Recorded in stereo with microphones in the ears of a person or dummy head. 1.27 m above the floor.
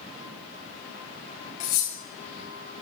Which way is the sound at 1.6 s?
35° left (ahead or behind).